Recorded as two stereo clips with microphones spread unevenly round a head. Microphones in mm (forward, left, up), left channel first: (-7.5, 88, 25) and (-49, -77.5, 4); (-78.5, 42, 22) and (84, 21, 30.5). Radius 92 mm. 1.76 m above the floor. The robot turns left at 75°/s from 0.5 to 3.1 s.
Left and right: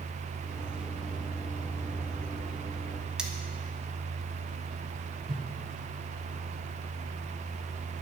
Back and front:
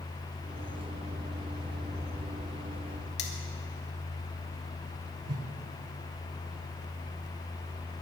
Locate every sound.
3.2 s cutlery clinking: 165° left, 2.0 m
5.3 s a whoosh: 35° right, 1.5 m